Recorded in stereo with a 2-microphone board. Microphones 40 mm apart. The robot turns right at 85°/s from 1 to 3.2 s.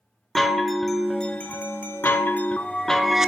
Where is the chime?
5° left, 0.6 m; by 3.3 s 170° right, 0.6 m.